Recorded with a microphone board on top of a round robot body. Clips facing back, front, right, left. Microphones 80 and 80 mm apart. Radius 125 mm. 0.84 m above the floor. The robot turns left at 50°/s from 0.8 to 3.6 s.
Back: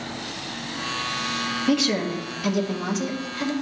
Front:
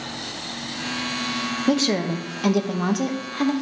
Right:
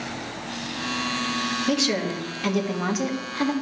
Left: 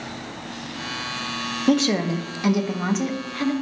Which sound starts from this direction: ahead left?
A woman speaking, at 1.7 s.